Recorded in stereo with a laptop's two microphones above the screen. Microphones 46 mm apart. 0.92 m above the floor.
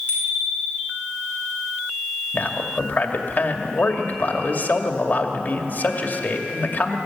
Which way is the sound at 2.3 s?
40° left (ahead or behind).